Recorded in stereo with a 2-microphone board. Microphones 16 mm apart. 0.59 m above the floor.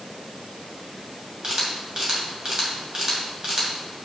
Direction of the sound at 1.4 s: 50° right (ahead or behind).